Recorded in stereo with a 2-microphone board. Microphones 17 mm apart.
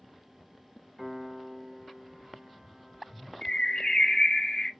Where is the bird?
35° left (ahead or behind), 0.8 m.